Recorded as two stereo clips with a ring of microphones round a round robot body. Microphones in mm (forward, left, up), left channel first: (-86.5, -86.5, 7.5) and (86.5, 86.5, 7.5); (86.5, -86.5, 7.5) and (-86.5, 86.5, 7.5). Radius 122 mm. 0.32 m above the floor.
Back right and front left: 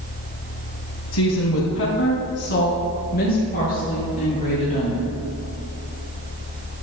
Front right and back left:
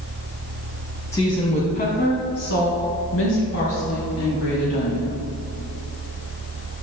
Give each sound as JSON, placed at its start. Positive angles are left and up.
{"t": 1.1, "sound": "a woman speaking", "azimuth_deg": -120, "distance_m": 1.8}